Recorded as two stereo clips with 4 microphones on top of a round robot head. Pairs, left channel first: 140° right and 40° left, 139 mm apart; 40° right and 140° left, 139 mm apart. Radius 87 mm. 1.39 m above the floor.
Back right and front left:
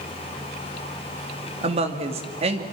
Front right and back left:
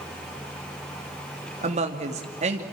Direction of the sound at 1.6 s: 90° left.